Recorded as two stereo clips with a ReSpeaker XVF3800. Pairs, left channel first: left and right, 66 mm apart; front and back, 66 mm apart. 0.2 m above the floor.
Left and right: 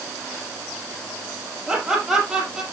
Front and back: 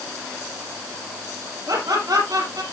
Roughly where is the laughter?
Behind.